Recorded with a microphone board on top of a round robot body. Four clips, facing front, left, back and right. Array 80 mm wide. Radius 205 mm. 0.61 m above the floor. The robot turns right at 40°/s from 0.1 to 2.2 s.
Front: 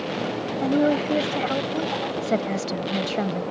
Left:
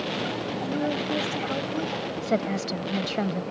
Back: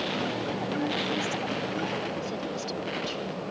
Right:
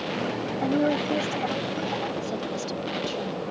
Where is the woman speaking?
25° right; by 3.4 s 35° left.